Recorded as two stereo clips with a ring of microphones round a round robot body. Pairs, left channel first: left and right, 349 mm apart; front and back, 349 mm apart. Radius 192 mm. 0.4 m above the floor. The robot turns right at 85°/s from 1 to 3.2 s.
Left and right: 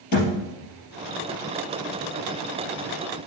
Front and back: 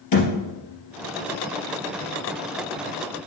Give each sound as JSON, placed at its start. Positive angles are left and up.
{"t": 0.1, "sound": "a thud", "azimuth_deg": 40, "distance_m": 3.0}